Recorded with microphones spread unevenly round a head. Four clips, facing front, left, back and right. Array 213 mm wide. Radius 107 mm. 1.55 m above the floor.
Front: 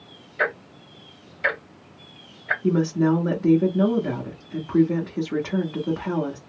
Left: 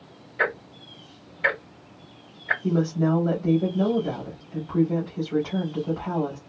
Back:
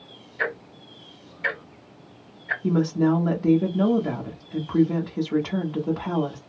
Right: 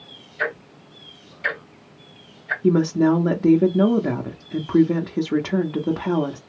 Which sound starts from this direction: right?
A woman speaking, at 2.6 s.